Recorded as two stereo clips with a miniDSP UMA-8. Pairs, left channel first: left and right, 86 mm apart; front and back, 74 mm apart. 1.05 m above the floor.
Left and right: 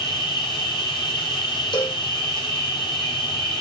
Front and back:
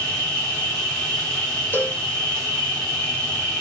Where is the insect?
65° left, 5.5 m.